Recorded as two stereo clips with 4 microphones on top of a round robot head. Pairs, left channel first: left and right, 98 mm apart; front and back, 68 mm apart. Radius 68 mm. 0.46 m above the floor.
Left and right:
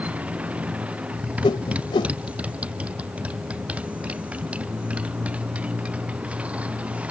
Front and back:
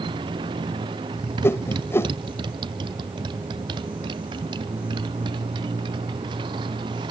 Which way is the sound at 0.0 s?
165° right.